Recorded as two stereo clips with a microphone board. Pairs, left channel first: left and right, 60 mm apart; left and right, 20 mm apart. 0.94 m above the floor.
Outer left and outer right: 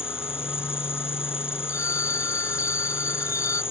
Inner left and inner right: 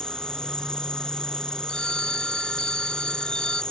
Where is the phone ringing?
55° left (ahead or behind).